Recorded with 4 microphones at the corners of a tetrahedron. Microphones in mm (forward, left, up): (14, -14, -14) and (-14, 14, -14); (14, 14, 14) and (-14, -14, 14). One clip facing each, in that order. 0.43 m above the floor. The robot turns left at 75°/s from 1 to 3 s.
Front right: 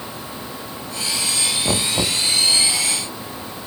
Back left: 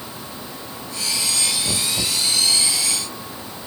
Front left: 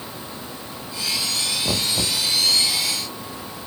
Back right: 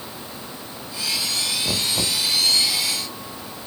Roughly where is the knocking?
Ahead right.